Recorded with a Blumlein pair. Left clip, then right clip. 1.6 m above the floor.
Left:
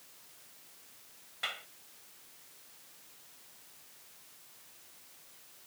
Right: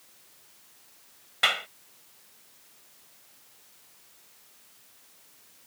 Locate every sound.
1.4 s a clap: 35° right